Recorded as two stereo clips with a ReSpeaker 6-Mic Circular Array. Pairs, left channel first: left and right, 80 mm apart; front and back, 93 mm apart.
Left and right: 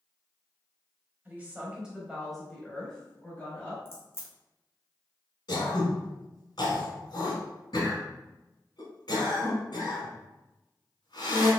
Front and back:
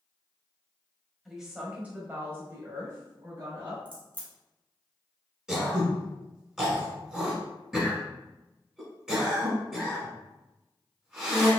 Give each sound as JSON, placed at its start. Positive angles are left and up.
{"t": 1.2, "sound": "a woman speaking", "azimuth_deg": -100, "distance_m": 1.0}
{"t": 3.9, "sound": "a crack", "azimuth_deg": 150, "distance_m": 1.8}
{"t": 5.5, "sound": "throat clearing", "azimuth_deg": 100, "distance_m": 1.3}